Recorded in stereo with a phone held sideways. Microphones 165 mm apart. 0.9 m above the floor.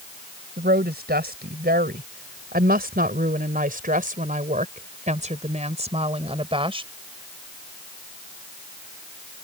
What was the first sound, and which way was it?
A woman speaking, 80° right.